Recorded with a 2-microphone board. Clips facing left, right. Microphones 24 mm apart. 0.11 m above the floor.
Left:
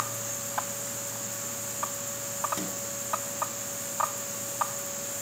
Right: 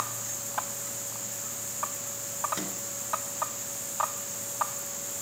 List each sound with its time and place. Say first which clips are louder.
2.5 s a microwave: left 1 dB; 15° right (ahead or behind), 1.5 m